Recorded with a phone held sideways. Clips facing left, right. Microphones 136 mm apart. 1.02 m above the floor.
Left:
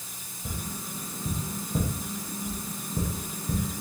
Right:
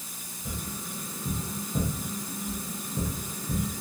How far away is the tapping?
About 1.6 m.